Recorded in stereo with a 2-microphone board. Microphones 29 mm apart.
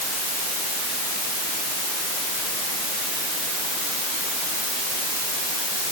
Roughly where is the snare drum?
No snare drum in this recording.